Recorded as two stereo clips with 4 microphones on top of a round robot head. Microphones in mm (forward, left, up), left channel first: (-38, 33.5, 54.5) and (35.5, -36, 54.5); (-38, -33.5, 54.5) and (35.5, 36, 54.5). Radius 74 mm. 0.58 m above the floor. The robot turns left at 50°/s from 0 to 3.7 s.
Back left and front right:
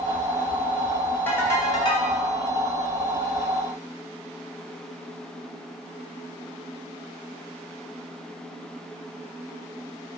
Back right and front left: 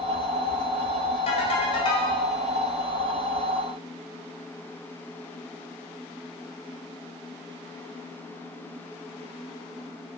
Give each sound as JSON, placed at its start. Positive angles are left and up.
{"t": 1.3, "sound": "a ringtone", "azimuth_deg": -150, "distance_m": 2.5}